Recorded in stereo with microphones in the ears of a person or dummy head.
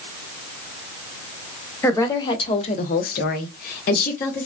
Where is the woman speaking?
15° left (ahead or behind), 0.8 m; by 4.5 s 45° left (ahead or behind), 1.0 m.